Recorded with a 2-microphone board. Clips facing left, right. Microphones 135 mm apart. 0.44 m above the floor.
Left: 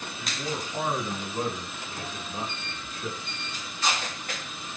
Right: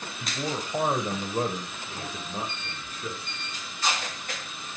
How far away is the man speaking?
About 2.5 m.